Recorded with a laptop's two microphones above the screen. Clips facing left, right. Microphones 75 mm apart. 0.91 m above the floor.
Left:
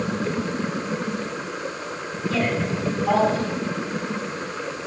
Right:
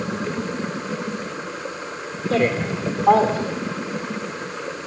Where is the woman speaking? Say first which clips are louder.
Right 4 dB; 50° right (ahead or behind), 2 m.